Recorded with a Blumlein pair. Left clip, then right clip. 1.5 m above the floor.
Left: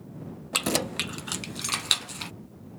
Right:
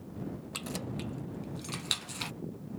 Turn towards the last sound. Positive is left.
turn(degrees=-5)